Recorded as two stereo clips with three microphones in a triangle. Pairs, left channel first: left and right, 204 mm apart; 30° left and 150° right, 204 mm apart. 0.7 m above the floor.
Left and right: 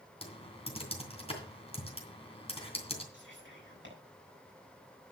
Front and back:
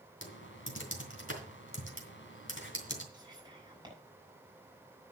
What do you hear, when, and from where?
0.2 s typing on a keyboard: 30° left, 2.5 m
3.1 s whispering: 80° right, 6.5 m